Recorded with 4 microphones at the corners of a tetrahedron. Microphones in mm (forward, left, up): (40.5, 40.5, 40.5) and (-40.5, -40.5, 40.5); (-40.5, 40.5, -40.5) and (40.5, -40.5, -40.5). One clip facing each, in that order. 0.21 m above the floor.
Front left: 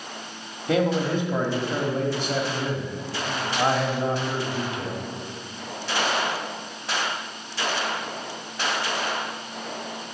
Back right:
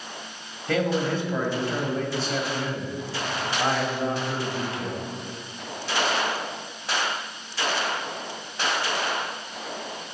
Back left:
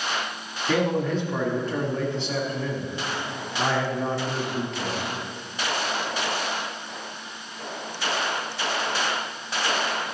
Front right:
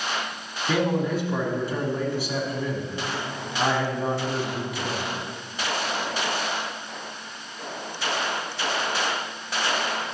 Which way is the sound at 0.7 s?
15° left.